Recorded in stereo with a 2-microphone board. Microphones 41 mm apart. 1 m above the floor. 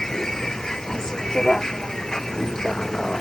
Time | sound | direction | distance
0.0 | a vehicle | 15° left (ahead or behind) | ?